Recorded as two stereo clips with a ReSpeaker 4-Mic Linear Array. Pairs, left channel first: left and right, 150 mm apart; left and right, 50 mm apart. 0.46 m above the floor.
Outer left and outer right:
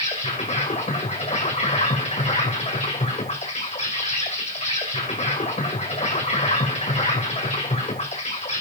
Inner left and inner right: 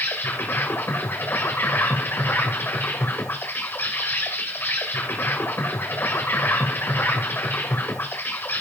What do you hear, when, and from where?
0.0 s an insect: 50° left (ahead or behind), 2.5 m